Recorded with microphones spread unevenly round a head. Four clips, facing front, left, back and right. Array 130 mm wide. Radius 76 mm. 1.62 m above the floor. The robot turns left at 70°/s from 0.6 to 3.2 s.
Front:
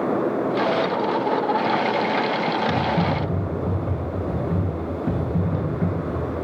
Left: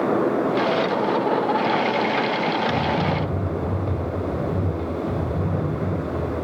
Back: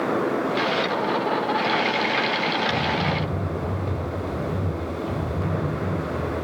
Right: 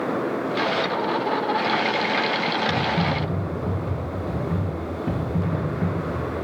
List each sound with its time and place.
2.7 s typing on a keyboard: 25° left, 2.5 m; by 6.2 s 10° right, 2.5 m